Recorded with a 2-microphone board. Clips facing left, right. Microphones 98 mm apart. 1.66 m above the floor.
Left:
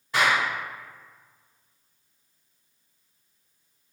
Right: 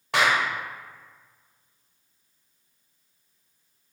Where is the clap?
70° right (ahead or behind), 1.0 m.